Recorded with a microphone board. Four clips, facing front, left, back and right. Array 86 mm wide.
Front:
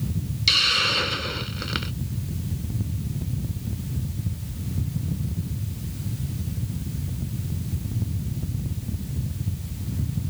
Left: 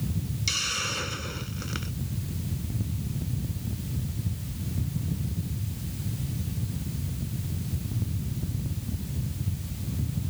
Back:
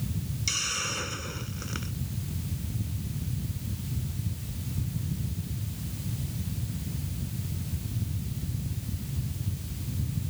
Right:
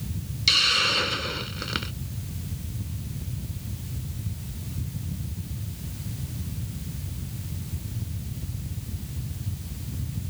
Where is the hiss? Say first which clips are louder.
Right 7 dB, front 13 dB; 40° right.